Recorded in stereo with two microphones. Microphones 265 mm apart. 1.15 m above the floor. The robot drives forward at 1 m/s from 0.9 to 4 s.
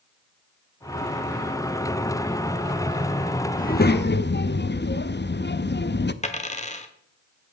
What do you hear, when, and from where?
3.6 s a child speaking: 30° left (ahead or behind), 0.7 m; by 6.1 s 40° left (ahead or behind), 0.6 m
6.2 s a dropped coin: 25° left (ahead or behind), 1.1 m